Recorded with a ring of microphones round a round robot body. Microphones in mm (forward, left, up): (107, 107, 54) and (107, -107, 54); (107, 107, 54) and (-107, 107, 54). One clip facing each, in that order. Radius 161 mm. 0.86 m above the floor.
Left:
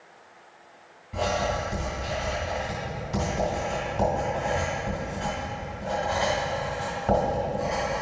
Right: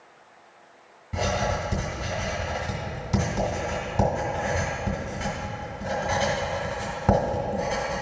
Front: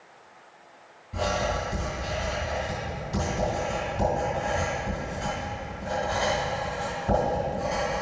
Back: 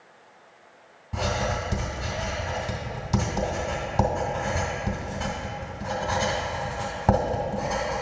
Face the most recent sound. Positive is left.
turn(degrees=-145)